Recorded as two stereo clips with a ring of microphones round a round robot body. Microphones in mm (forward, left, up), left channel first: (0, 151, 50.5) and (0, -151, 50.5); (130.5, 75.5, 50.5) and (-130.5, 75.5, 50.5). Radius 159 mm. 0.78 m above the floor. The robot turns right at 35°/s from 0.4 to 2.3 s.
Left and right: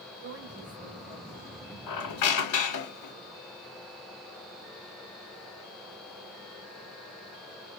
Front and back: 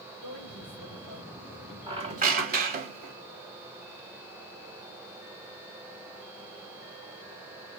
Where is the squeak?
110° left, 1.3 m; by 3.1 s 125° left, 1.3 m.